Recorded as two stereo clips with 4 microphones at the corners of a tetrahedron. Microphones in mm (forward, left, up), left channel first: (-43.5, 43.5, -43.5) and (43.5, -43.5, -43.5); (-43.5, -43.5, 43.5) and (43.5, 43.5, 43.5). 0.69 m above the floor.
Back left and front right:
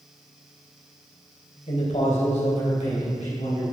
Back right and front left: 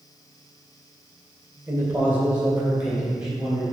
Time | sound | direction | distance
1.7 | a man speaking | 110° left | 2 m